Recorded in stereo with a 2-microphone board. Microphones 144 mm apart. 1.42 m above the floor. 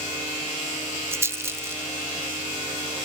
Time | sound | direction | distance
1.1 | a rattle | 15° right (ahead or behind) | ?